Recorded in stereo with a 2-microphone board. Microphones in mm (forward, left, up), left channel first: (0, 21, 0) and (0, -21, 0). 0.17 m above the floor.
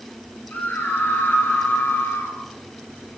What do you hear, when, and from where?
0.5 s a scream: 45° left (ahead or behind), 3.5 m; by 2.4 s 60° left (ahead or behind), 2.5 m